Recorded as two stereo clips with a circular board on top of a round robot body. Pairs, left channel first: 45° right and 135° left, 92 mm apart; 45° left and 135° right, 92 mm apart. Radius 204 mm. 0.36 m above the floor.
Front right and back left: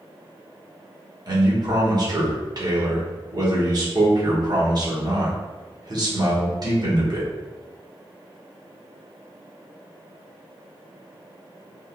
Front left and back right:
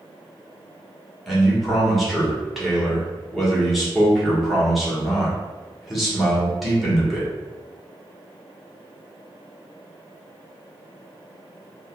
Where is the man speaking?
140° left, 1.6 m.